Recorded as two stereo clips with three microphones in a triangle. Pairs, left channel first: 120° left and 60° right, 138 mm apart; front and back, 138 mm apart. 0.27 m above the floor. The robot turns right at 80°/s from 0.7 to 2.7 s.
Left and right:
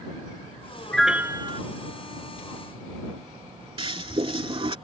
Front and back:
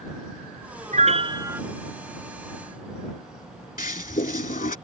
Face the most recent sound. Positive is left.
turn(degrees=-10)